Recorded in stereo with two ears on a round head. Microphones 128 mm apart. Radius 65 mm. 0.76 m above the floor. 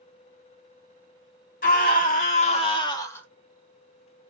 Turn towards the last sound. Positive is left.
turn(degrees=15)  # may be behind; listen again after turning